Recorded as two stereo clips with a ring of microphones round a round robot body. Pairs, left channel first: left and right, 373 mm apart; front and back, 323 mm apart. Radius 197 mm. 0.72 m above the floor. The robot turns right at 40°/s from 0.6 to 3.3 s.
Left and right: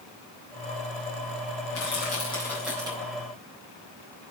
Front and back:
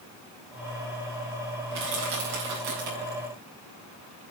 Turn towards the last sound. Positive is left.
turn(degrees=-150)